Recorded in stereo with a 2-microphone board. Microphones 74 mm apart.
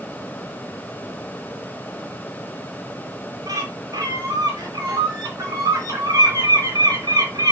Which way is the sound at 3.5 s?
55° right (ahead or behind).